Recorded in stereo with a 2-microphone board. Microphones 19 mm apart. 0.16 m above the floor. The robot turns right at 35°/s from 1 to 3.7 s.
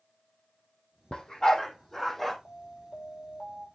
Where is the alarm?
100° left, 7.5 m; by 3.7 s 145° left, 7.5 m.